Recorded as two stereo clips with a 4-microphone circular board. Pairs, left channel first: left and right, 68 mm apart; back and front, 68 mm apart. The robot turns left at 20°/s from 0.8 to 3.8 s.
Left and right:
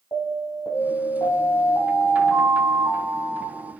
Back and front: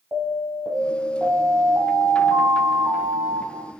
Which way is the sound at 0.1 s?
60° left.